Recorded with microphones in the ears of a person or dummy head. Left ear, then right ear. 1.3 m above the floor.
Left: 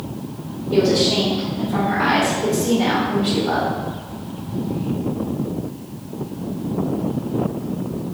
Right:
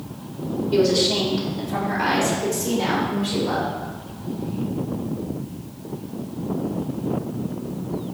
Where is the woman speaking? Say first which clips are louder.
Left 2 dB; 40° right (ahead or behind), 0.9 m; by 3.7 s 45° right (ahead or behind), 2.5 m.